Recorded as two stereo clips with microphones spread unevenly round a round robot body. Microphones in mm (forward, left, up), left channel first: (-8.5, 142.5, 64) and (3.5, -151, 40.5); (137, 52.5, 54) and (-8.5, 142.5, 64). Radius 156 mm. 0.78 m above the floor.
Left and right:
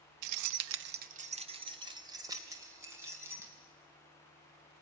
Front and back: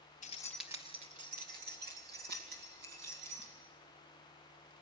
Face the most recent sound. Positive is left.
turn(degrees=-170)